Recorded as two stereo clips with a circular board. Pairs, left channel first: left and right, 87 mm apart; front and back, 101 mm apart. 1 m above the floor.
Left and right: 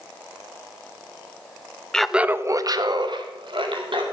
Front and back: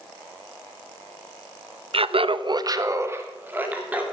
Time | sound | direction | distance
1.9 | laughter | 170° left | 0.8 m